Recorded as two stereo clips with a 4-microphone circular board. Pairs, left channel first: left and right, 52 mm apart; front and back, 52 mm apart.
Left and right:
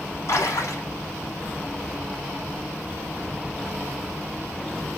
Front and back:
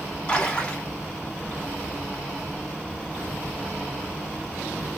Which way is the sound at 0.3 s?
65° left.